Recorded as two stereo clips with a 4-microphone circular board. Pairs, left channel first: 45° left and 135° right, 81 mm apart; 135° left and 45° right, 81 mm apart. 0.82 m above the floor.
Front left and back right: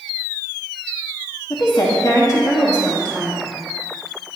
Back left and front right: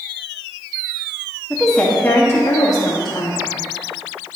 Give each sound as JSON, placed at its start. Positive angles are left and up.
{"t": 1.5, "sound": "a woman speaking", "azimuth_deg": 45, "distance_m": 1.5}